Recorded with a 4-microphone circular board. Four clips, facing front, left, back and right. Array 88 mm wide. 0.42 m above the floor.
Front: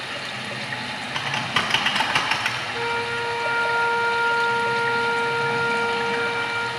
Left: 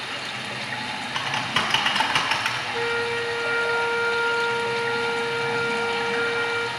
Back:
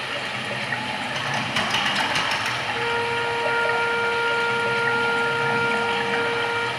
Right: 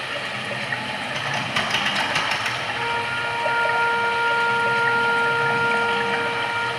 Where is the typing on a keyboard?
45° left, 1.4 m.